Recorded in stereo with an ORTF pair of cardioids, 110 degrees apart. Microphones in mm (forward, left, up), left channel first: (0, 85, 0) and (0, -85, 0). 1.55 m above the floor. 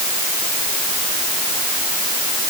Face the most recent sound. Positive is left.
No sound to turn to.